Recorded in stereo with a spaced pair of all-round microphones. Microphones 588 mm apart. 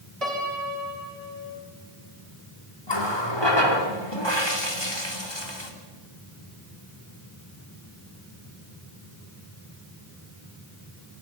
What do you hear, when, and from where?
0.2 s a piano: 85° right, 4 m
2.9 s a running tap: 45° left (ahead or behind), 3 m